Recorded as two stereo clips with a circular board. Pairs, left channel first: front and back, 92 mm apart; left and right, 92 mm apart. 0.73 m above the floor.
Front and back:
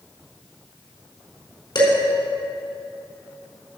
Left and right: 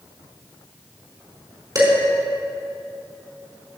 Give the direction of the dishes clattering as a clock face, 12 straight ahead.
1 o'clock.